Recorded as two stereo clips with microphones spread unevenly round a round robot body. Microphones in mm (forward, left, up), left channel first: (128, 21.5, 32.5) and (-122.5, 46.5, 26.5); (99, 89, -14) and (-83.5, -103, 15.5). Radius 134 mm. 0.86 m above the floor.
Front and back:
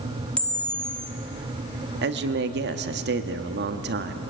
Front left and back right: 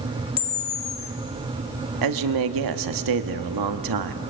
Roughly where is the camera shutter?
Left.